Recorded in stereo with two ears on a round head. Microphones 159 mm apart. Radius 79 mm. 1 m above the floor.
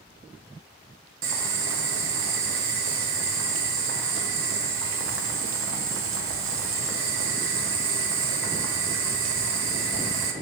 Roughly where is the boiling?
Right.